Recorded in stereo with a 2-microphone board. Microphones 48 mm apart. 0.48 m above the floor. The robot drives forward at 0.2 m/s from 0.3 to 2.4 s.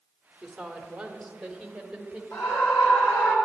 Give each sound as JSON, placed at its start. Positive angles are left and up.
{"t": 0.4, "sound": "a woman speaking", "side_deg": -10, "distance_m": 1.3}
{"t": 2.3, "sound": "a scream", "side_deg": 55, "distance_m": 3.0}